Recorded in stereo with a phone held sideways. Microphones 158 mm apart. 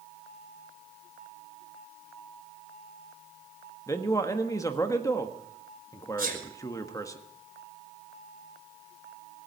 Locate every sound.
3.9 s a man speaking: 20° left (ahead or behind), 1.4 m
6.2 s a sneeze: 65° right (ahead or behind), 5.5 m